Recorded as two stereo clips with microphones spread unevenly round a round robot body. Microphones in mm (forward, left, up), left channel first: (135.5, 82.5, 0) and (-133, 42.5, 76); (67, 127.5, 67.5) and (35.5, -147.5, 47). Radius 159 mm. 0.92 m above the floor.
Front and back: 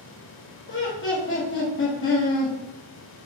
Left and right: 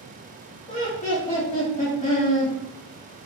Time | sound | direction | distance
0.7 | laughter | 20° left | 1.5 m